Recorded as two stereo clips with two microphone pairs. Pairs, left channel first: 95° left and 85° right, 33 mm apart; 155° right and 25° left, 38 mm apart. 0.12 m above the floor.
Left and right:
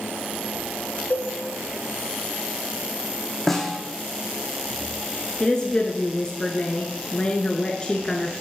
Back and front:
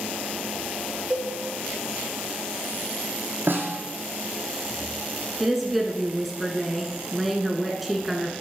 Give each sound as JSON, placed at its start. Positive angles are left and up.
{"t": 1.1, "sound": "a cowbell", "azimuth_deg": 80, "distance_m": 2.5}
{"t": 3.5, "sound": "a snare drum", "azimuth_deg": 15, "distance_m": 1.6}
{"t": 5.4, "sound": "a woman speaking", "azimuth_deg": 115, "distance_m": 1.2}